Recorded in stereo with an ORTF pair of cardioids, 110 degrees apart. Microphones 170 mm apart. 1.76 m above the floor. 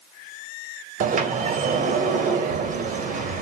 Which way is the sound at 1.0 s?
55° right.